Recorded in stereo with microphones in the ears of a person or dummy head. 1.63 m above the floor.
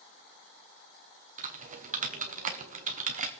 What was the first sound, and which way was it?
Typing on a keyboard, 40° right (ahead or behind).